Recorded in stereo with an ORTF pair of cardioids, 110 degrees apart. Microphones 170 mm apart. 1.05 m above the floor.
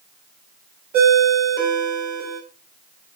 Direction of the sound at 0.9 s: 65° right.